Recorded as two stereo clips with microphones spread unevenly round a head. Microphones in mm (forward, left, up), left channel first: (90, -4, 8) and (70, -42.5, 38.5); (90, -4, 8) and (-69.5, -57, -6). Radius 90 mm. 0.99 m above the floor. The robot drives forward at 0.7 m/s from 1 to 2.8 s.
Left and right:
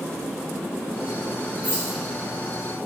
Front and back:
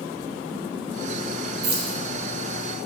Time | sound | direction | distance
1.6 | keys jangling | 175° right | 0.8 m